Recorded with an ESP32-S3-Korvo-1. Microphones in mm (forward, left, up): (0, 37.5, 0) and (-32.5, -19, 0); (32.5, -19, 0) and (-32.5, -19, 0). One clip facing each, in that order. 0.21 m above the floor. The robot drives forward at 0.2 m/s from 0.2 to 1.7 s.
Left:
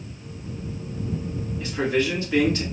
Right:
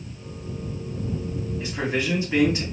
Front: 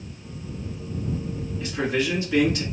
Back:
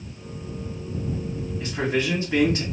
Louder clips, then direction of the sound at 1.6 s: Left 4 dB, even; 170° right.